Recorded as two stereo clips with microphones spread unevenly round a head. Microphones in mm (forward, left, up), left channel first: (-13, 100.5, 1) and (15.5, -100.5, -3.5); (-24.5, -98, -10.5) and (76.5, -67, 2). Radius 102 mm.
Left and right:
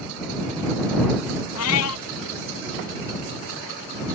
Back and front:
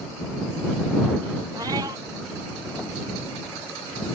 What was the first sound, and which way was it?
A cat meowing, 90° left.